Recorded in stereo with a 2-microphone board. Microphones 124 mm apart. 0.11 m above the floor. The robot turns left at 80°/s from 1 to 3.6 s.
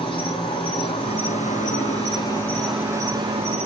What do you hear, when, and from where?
0.0 s an insect: 135° left, 4.5 m; by 3.7 s 75° right, 4.5 m